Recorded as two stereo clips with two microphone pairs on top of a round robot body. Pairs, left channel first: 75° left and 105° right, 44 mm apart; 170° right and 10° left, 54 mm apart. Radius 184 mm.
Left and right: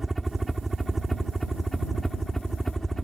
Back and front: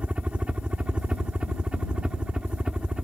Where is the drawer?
I don't hear a drawer.